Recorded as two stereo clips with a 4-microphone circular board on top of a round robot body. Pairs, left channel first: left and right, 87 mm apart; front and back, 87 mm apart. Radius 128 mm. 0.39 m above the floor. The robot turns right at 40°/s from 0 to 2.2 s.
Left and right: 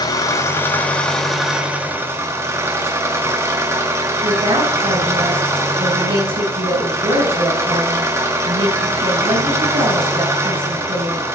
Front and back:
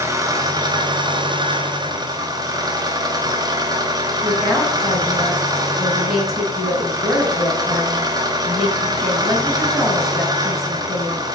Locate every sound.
0.0 s an engine running: 125° left, 1.7 m; by 11.3 s 145° right, 1.7 m
4.2 s a woman speaking: 95° right, 3 m